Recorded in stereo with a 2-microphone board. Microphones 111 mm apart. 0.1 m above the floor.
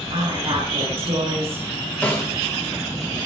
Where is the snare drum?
15° left (ahead or behind), 4 m.